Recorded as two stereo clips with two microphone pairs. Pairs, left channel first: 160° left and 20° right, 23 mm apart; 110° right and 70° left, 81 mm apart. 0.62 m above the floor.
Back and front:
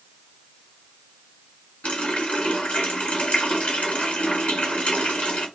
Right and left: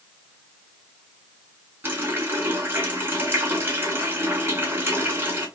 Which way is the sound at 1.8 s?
130° left.